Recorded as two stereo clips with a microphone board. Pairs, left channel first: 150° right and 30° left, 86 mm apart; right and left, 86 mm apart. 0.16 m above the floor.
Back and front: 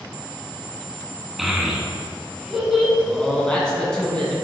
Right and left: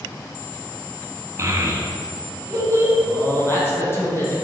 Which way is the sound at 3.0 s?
80° right.